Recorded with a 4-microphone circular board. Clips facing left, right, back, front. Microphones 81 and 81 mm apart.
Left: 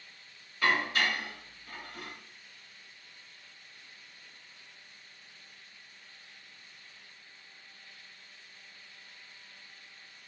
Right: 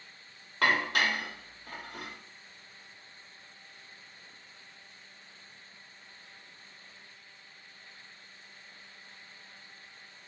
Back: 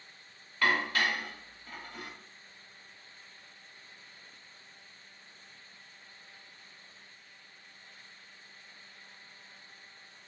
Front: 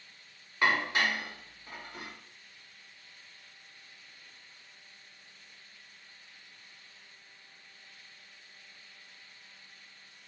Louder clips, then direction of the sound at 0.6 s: Right 1 dB, front 1 dB; 70° right.